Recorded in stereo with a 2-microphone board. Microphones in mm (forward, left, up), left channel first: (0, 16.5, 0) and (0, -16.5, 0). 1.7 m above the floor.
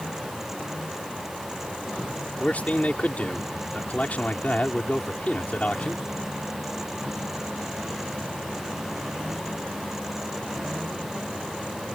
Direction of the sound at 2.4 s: 45° left (ahead or behind).